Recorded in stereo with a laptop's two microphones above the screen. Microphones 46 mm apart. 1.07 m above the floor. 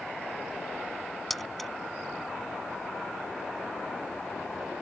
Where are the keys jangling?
5° left (ahead or behind).